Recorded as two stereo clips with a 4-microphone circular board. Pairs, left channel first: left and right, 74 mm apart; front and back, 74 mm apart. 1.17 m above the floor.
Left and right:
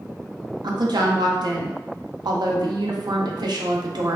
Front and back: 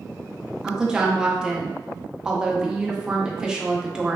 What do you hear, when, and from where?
0.6 s a woman speaking: 100° right, 0.5 m